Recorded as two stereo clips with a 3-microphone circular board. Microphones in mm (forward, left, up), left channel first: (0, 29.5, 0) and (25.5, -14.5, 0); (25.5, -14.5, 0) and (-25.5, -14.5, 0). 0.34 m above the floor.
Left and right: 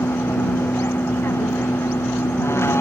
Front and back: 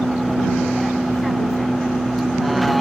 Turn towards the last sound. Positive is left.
turn(degrees=90)